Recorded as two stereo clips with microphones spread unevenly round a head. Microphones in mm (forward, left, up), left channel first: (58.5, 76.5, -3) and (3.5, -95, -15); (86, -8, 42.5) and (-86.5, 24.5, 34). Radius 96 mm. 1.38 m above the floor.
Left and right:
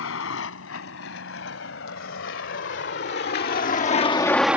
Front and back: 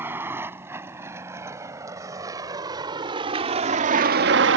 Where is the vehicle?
90° left; by 4.6 s 170° left.